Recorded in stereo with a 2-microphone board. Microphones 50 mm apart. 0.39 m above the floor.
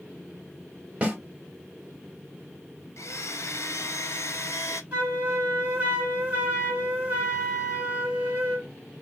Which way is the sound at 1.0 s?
20° right (ahead or behind).